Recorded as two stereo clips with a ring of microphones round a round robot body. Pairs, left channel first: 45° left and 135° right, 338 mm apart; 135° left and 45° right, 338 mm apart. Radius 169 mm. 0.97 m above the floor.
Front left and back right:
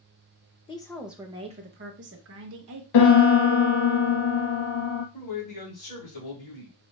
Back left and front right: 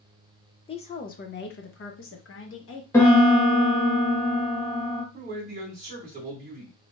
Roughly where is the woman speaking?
Left.